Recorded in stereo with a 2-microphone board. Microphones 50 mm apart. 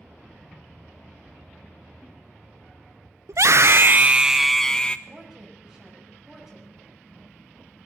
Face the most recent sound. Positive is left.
turn(degrees=-5)  # may be behind; listen again after turning